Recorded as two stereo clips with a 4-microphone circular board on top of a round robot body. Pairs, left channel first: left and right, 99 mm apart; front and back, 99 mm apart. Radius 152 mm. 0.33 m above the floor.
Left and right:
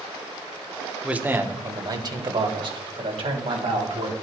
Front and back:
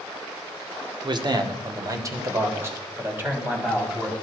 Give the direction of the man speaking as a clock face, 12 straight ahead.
6 o'clock.